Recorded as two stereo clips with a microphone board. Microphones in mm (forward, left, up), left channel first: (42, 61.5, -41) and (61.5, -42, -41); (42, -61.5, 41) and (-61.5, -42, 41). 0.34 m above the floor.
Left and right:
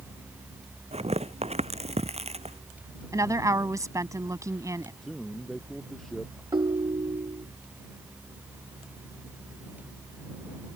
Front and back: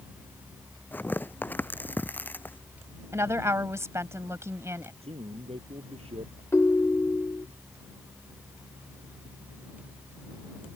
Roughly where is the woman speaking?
Behind right.